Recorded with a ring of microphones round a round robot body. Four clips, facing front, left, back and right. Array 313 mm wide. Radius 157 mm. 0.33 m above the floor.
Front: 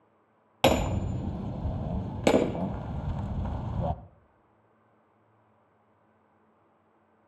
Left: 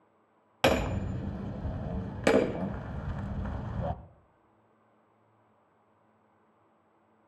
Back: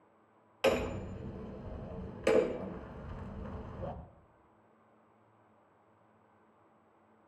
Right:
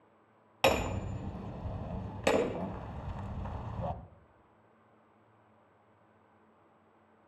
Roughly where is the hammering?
Ahead.